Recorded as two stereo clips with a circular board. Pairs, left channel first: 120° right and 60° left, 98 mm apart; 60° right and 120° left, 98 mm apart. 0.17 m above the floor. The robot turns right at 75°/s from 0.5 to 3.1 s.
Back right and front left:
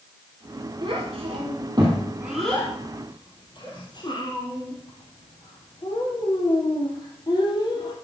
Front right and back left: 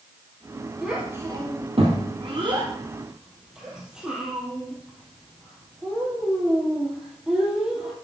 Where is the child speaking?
30° left, 3 m; by 7.9 s 160° right, 3 m.